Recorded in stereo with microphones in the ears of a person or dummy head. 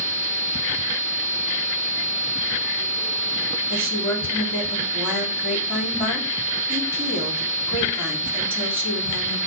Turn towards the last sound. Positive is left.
turn(degrees=-10)  # may be behind; listen again after turning